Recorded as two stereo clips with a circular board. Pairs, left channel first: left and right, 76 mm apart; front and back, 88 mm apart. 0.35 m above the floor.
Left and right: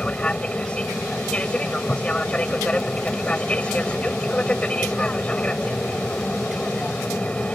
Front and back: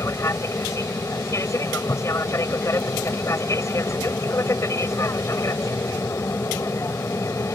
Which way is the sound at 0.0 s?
25° left.